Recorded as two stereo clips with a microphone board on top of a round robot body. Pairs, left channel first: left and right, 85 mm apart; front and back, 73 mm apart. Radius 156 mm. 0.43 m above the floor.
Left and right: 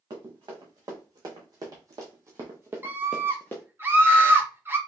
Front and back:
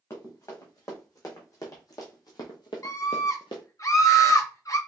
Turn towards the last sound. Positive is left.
turn(degrees=-30)